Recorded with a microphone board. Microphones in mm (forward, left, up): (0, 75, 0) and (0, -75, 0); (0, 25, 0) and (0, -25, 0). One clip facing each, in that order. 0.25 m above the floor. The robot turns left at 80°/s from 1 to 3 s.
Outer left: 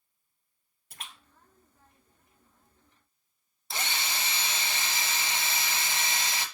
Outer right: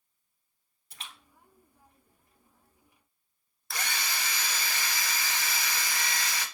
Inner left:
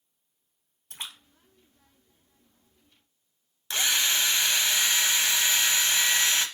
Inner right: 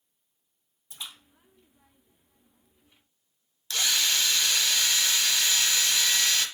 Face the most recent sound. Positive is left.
turn(degrees=25)  # may be behind; listen again after turning